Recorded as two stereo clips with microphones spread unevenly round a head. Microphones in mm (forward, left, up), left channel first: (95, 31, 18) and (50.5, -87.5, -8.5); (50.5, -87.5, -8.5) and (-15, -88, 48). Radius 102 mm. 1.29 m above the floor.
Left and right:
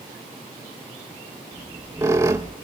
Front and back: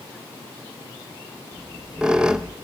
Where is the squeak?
170° left, 0.6 m.